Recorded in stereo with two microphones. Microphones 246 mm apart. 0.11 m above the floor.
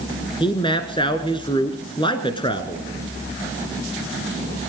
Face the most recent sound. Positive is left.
turn(degrees=20)  # may be behind; listen again after turning